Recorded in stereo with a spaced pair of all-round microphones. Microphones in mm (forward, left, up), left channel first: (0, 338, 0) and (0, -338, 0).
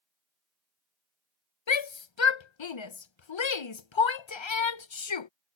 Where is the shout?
45° left (ahead or behind).